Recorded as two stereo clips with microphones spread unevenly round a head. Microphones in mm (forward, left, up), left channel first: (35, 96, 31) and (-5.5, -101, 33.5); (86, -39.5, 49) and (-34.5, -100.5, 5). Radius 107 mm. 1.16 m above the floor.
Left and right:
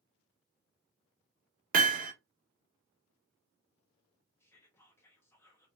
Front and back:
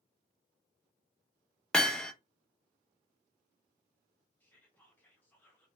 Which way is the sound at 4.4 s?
130° left.